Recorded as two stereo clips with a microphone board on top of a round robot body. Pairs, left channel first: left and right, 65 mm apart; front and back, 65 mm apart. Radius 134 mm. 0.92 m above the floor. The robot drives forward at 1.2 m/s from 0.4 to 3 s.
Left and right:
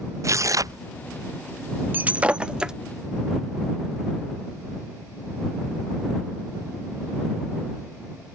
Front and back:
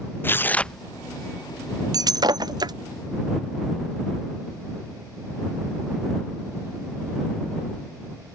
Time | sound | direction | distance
0.2 | tearing paper | 55° right | ?
1.9 | breaking glass | 155° right | ?